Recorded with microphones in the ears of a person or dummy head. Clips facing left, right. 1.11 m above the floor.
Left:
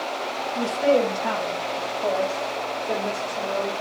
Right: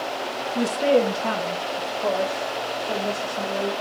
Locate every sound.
0.6 s a woman speaking: 60° right (ahead or behind), 0.6 m; by 3.7 s 25° left (ahead or behind), 1.4 m